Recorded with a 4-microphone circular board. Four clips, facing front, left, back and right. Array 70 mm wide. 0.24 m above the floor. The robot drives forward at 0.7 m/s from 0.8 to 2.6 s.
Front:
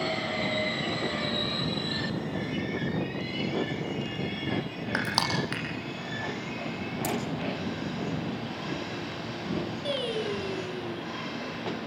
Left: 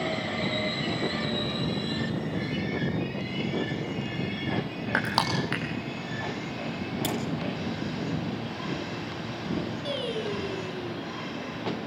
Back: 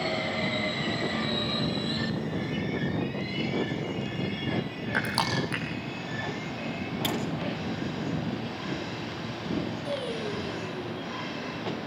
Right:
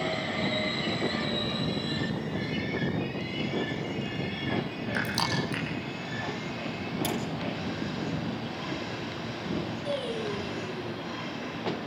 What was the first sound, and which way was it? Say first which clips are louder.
Crushing: left 4 dB, back 1 dB; 75° left.